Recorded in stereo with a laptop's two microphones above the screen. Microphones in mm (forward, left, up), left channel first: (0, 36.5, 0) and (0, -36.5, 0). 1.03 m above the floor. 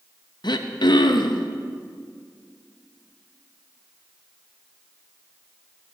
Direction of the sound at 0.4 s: 75° left (ahead or behind).